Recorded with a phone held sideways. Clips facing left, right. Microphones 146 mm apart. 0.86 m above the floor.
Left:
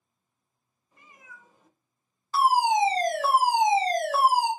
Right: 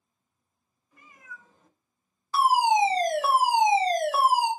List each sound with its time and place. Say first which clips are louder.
0.9 s a cat meowing: right 3 dB; 30° left (ahead or behind), 1.1 m; by 3.3 s 65° right (ahead or behind), 1.2 m
2.3 s a fire alarm: right 1 dB; 20° right (ahead or behind), 1.3 m